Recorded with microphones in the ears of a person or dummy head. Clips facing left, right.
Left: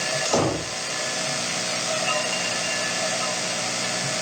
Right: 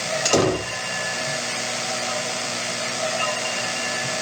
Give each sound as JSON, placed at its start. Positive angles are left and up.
{"t": 0.2, "sound": "a door slam", "side_deg": -30, "distance_m": 2.5}